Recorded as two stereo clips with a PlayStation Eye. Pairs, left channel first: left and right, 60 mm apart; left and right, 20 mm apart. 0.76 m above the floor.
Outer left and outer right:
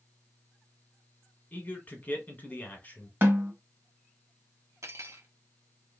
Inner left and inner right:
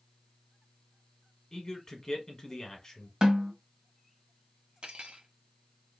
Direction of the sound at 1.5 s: 25° left (ahead or behind).